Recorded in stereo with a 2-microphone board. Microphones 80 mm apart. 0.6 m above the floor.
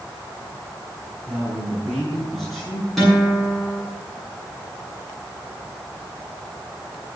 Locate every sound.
1.3 s a man speaking: 5° left (ahead or behind), 9 m; by 2.9 s centre (ahead or behind), 10 m
3.0 s a guitar: centre (ahead or behind), 7.5 m